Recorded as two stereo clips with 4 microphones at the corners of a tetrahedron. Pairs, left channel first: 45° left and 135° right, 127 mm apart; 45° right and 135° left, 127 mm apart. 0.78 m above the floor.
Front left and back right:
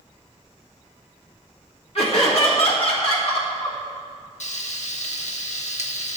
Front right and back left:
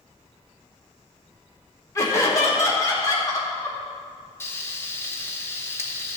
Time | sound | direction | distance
1.9 | laughter | 15° left | 2.5 m
4.4 | frying | 25° left | 0.9 m